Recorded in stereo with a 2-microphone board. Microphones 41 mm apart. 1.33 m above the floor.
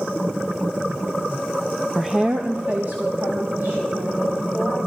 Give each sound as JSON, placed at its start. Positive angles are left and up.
{"t": 1.9, "sound": "a woman speaking", "side_deg": 10, "distance_m": 0.5}